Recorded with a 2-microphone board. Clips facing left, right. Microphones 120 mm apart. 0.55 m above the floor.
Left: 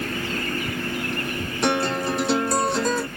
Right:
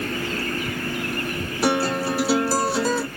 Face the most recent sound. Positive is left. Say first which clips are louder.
# right 1 dB
turn(degrees=-5)  # may be behind; listen again after turning